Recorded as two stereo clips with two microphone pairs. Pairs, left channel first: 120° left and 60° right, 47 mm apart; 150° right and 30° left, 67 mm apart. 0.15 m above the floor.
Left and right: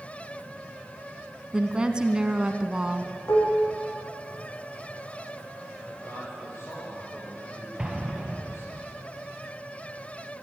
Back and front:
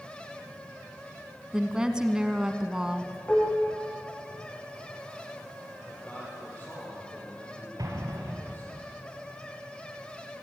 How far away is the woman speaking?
About 1.2 m.